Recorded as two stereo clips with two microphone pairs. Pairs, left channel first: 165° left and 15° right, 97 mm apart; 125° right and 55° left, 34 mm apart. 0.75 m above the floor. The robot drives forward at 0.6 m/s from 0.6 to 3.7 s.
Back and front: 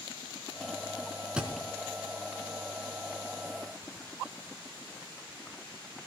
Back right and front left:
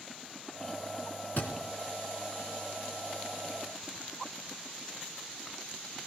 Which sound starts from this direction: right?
A thud, at 1.4 s.